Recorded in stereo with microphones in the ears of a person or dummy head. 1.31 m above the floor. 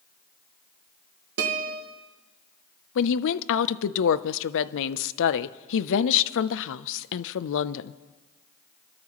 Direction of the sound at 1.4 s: 65° right (ahead or behind).